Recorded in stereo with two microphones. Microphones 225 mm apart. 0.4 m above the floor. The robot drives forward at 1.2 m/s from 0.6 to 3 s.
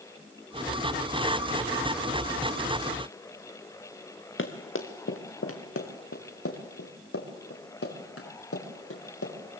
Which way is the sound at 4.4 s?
60° left (ahead or behind).